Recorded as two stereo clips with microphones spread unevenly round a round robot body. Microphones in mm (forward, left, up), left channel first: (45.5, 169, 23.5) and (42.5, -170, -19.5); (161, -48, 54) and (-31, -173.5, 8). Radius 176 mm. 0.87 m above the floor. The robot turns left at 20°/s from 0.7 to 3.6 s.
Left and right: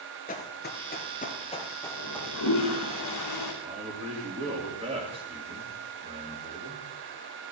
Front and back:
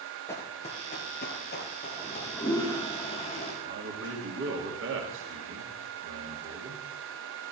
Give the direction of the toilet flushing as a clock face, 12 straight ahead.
8 o'clock.